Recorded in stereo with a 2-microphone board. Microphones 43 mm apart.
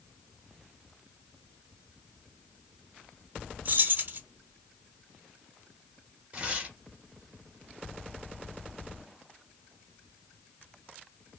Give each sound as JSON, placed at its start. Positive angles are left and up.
{"t": 3.6, "sound": "keys jangling", "side_deg": -50, "distance_m": 0.9}
{"t": 6.3, "sound": "tearing paper", "side_deg": -25, "distance_m": 1.2}